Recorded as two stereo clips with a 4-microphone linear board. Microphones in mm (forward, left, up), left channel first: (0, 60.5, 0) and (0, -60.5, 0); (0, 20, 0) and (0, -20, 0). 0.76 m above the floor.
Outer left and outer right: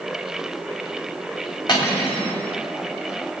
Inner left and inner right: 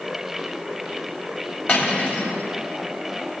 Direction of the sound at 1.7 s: 35° left (ahead or behind).